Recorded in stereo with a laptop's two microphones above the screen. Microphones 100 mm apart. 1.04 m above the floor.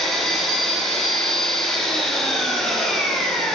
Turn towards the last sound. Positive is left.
turn(degrees=5)  # may be behind; listen again after turning